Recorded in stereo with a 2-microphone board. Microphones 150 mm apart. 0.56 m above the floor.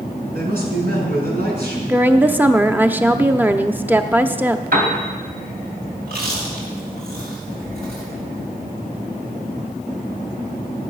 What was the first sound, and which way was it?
A man speaking, 65° right (ahead or behind).